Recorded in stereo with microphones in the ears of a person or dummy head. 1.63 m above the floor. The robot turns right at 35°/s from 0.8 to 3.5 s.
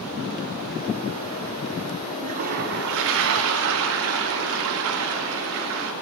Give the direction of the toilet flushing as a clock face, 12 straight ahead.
5 o'clock.